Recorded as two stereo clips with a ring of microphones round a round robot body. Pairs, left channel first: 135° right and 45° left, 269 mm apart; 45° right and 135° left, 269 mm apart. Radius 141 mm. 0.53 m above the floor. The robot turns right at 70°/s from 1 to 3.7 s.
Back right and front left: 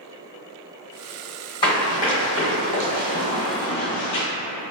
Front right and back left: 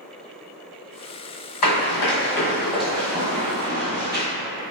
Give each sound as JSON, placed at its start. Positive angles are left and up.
{"t": 1.6, "sound": "running footsteps", "azimuth_deg": -65, "distance_m": 1.5}